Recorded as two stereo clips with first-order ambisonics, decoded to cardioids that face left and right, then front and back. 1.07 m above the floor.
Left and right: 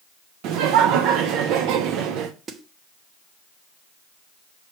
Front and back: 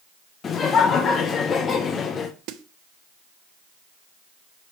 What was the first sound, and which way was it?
Laughter, 65° right.